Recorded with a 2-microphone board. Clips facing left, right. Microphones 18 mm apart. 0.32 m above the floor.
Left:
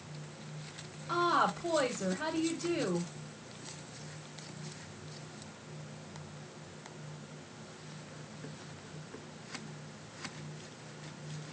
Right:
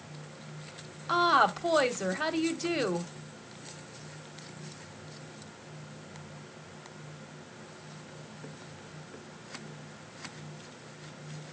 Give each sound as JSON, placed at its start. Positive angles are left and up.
{"t": 1.1, "sound": "a woman speaking", "side_deg": -35, "distance_m": 1.3}